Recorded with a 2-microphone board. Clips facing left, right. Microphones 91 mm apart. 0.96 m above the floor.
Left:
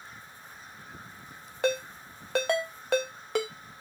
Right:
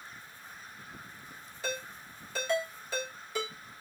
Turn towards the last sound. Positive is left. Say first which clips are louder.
# left 9 dB
turn(degrees=70)  # may be behind; listen again after turning